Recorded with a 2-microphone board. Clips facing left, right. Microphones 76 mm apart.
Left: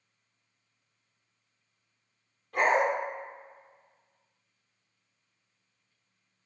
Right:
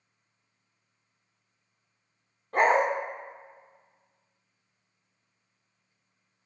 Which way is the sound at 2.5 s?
40° right (ahead or behind).